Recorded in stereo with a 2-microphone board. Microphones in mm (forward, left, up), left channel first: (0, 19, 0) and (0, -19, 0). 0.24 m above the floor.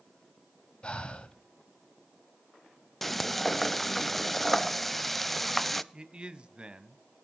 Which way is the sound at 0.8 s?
30° left (ahead or behind).